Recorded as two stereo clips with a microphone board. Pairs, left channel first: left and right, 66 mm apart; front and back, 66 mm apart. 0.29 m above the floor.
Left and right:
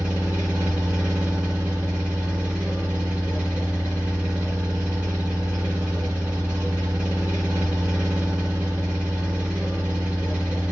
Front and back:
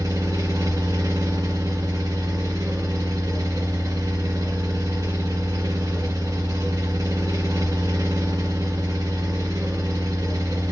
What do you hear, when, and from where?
0.0 s an engine running: 165° right, 2 m